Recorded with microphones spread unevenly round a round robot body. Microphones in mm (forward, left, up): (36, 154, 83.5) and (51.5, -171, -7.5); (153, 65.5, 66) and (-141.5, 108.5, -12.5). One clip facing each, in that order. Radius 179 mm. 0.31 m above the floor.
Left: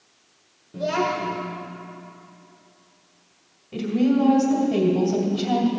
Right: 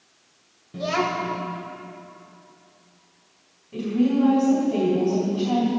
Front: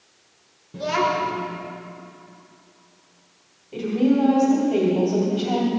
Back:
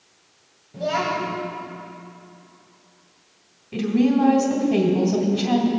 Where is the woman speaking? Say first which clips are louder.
Left 1 dB, back 1 dB; 145° left, 2.0 m.